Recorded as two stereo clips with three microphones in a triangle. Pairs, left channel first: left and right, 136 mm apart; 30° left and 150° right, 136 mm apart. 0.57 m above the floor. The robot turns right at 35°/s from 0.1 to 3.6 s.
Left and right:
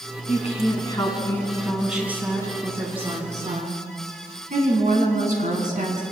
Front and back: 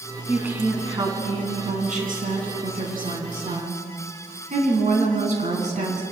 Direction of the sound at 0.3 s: 125° left.